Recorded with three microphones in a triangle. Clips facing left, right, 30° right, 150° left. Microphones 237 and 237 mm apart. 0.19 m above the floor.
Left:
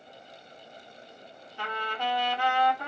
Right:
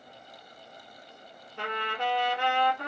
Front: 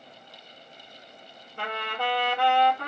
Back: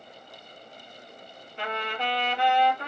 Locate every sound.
1.6 s a trumpet: 70° right, 2.5 m